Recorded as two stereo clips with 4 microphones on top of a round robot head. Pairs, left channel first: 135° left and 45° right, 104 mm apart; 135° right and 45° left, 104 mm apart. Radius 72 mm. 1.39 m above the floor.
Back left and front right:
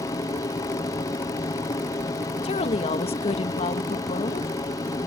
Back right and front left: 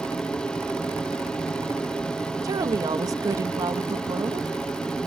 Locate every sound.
0.0 s an aircraft: 150° left
2.4 s a woman speaking: 105° left